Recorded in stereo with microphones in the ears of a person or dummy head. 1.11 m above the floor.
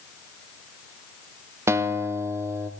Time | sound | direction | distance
1.7 | a guitar | 15° right (ahead or behind) | 0.8 m